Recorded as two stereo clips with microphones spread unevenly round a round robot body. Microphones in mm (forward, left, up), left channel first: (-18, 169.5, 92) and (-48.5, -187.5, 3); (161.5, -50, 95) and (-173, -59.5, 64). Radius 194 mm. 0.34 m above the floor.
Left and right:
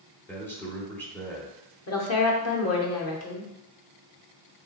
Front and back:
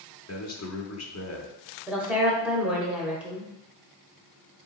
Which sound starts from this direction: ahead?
A man speaking, at 0.3 s.